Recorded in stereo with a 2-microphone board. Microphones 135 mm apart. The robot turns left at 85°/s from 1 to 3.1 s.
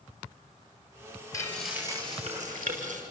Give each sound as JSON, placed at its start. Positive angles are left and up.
{"t": 1.3, "sound": "frying", "azimuth_deg": 25, "distance_m": 5.5}